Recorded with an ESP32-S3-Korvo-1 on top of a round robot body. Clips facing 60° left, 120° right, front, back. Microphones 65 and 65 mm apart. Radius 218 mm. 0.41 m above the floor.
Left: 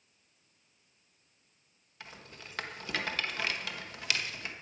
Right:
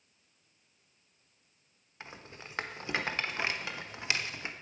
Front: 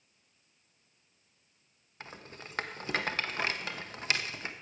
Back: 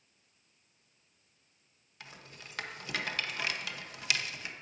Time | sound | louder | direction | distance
2.0 | a rattle | right 2 dB, front 4 dB | 55° right | 1.1 m